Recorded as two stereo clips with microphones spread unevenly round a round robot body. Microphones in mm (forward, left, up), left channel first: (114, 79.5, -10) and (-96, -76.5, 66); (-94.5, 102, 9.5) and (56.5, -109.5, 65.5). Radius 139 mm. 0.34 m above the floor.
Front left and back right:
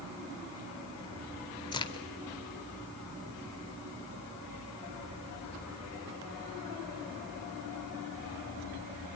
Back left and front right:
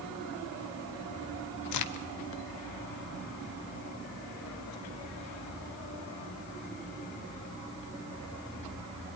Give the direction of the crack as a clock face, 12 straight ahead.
8 o'clock.